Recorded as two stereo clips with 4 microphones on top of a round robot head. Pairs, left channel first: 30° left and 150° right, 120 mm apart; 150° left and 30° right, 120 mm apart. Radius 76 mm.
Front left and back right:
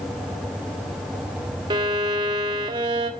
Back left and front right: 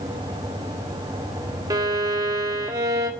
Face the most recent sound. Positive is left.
turn(degrees=-95)